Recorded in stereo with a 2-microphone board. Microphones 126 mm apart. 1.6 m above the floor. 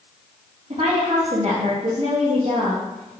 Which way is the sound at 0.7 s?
55° right (ahead or behind).